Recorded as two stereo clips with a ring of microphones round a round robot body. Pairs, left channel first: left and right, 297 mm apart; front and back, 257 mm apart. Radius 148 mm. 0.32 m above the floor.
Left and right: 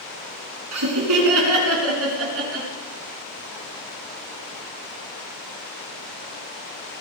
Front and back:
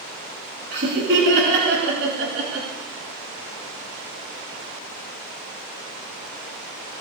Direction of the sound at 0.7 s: 125° right.